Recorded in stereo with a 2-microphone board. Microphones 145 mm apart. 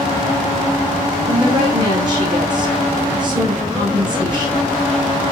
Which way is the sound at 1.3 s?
30° right (ahead or behind).